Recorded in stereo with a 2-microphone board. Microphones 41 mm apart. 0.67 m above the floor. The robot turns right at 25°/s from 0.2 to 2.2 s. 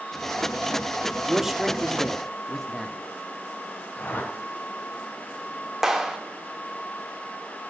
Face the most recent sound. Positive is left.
turn(degrees=-10)  # may be behind; listen again after turning